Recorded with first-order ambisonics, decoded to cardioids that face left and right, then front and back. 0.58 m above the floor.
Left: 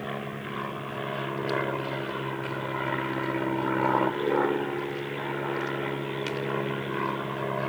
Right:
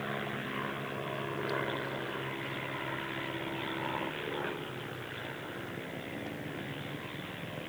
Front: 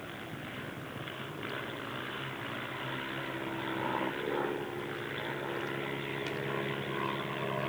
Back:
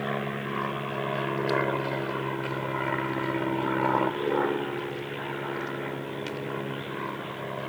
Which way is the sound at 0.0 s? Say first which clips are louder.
Left 2 dB, back 12 dB; 165° left.